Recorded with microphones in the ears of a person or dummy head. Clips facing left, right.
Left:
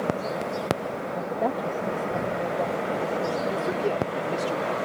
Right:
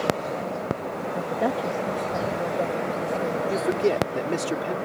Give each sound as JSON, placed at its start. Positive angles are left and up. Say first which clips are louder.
{"t": 1.1, "sound": "a woman speaking", "louder": "right 2 dB", "side_deg": -10}
{"t": 3.5, "sound": "a man speaking", "louder": "right 3 dB", "side_deg": -25}